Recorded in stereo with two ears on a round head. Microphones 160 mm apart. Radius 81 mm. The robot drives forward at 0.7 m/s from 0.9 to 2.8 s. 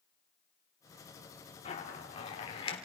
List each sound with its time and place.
1.6 s a zipper: 35° left (ahead or behind), 2.5 m; by 2.8 s 30° left (ahead or behind), 3.5 m